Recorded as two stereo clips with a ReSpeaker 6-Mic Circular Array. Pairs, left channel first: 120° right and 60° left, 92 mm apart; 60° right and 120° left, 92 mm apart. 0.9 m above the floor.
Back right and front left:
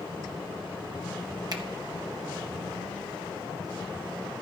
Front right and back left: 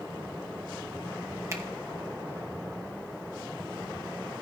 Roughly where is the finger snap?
Left.